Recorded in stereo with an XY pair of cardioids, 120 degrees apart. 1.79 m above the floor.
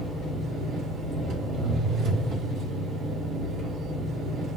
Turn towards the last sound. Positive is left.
turn(degrees=-70)